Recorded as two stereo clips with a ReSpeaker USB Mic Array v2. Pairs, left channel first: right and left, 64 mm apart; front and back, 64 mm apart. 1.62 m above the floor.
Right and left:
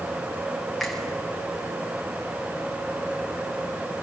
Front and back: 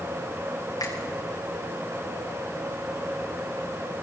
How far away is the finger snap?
About 7.5 m.